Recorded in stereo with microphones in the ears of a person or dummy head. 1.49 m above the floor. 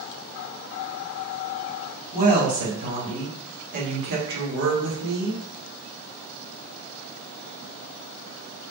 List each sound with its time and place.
2.1 s a woman speaking: 15° right (ahead or behind), 1.9 m; by 5.4 s 65° right (ahead or behind), 1.5 m